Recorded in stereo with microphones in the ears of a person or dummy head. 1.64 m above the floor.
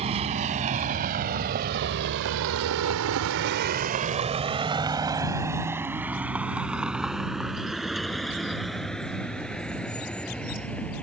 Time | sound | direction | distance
0.0 | a vehicle | 35° right (ahead or behind) | ?